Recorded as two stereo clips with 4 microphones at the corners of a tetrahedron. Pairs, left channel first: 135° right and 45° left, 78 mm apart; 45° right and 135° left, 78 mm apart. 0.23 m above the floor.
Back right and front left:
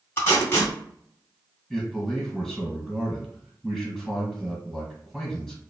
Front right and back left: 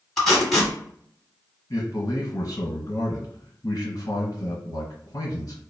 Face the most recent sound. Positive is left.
turn(degrees=-55)